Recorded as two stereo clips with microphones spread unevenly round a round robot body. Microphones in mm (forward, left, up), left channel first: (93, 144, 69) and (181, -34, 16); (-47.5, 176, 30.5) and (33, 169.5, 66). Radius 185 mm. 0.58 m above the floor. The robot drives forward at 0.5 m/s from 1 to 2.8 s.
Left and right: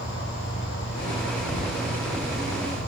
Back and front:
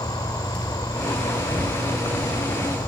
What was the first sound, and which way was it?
An insect, 160° left.